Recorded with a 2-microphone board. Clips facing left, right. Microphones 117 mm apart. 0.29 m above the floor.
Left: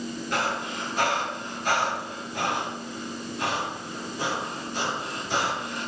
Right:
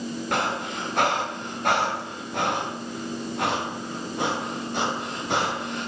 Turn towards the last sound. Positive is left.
turn(degrees=-65)  # may be behind; listen again after turning